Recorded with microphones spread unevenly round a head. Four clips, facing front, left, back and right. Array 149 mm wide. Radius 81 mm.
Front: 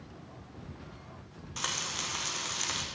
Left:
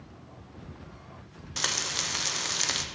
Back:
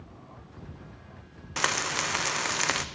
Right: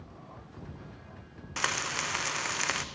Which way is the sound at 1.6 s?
Straight behind.